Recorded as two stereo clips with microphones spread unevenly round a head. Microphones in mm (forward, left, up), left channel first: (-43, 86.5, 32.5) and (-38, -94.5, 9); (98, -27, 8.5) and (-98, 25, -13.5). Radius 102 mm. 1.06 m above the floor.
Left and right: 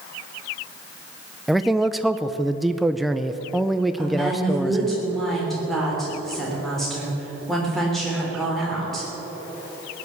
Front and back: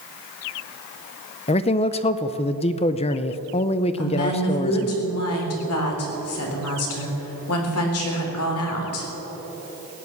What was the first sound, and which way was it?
A man speaking, 15° right.